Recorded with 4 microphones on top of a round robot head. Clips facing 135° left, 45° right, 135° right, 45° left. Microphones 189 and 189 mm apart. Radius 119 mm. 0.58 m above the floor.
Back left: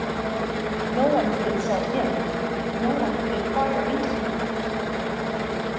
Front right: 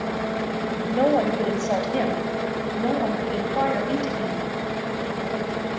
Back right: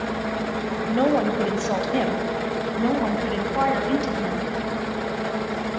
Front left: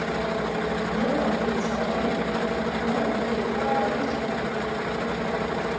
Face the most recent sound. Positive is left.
turn(degrees=-125)